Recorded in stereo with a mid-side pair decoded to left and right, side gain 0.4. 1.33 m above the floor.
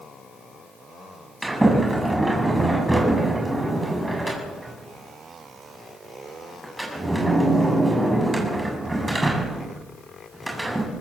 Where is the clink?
No clink in this recording.